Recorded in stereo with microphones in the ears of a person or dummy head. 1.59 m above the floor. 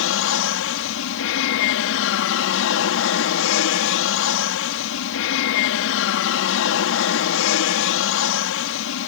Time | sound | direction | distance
0.0 | an aircraft | 70° left (ahead or behind) | ?